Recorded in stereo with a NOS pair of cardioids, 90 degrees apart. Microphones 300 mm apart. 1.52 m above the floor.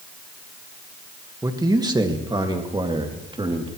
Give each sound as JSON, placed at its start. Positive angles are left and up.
{"t": 1.4, "sound": "a man speaking", "azimuth_deg": -10, "distance_m": 1.7}